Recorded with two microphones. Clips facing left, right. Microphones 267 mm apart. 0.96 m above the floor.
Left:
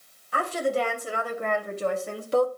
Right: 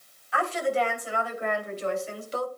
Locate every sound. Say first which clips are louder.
0.3 s a woman speaking: left 1 dB; 45° left (ahead or behind), 3 m; by 2.5 s 65° left (ahead or behind), 1.9 m